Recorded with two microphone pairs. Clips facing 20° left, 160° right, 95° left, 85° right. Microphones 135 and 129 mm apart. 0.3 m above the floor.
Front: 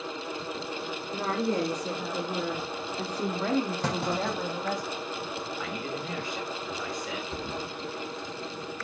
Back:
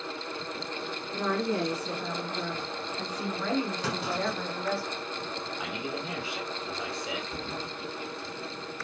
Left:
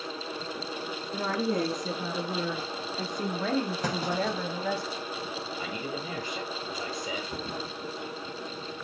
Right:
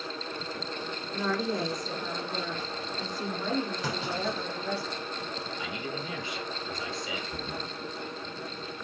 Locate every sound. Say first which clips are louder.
1.1 s a woman speaking: even, left 1 dB; 60° left, 4 m; by 4.8 s 90° left, 2 m
3.8 s a clunk: front 2 dB, left 3 dB; 55° left, 5 m
5.6 s a man speaking: front 1 dB, left 2 dB; 125° left, 1.8 m
7.3 s a thud: front 2 dB, left 1 dB; 65° left, 4 m